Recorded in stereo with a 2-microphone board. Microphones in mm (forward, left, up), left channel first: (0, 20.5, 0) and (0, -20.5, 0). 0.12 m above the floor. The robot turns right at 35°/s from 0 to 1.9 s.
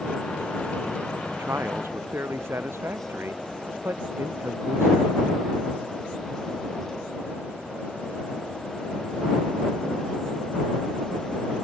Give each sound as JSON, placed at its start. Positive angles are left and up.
{"t": 1.3, "sound": "a man speaking", "side_deg": -75}